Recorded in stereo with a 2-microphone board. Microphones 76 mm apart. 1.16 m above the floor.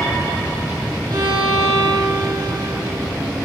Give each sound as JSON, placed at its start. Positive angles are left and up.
{"t": 1.1, "sound": "a violin", "side_deg": -80, "distance_m": 4.0}